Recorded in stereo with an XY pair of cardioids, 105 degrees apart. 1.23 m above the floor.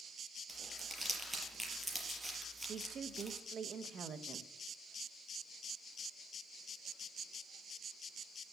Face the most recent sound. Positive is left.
turn(degrees=-55)